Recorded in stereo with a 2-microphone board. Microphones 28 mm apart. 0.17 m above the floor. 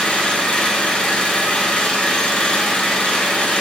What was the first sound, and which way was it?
An engine running, 40° left (ahead or behind).